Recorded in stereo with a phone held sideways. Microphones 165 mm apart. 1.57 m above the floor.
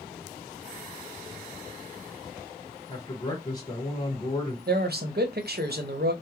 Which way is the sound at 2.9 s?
25° left (ahead or behind).